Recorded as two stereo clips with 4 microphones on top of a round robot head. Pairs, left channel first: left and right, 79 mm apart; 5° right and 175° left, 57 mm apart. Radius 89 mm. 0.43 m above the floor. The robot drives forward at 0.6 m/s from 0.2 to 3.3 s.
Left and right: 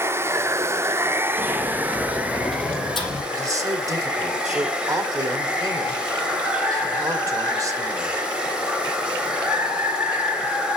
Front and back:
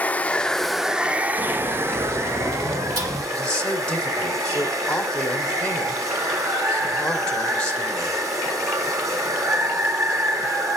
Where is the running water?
60° right, 0.7 m; by 10.8 s 165° right, 1.8 m.